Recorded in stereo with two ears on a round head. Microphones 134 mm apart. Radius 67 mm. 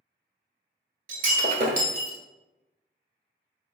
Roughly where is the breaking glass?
Right.